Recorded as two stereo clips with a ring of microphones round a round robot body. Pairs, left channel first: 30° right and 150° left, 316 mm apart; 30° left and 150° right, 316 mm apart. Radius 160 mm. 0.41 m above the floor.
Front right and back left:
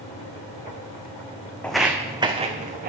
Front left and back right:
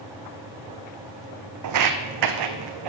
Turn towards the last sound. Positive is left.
turn(degrees=-145)